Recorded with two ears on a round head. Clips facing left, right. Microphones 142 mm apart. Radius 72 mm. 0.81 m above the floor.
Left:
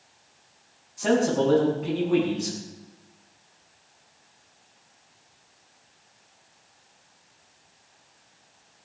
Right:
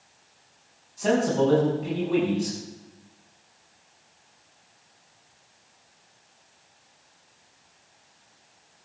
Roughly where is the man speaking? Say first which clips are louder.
Even; centre.